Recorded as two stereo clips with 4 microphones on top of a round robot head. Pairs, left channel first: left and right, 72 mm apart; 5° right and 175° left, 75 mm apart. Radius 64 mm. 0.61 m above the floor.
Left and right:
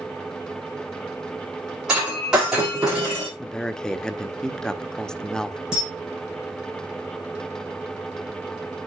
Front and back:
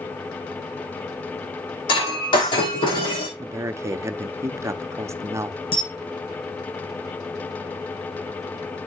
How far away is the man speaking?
About 1.0 m.